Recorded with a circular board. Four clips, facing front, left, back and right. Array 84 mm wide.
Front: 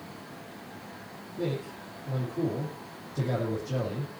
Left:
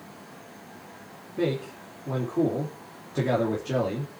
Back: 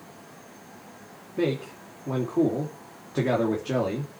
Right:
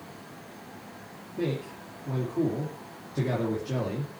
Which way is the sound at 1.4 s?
165° left.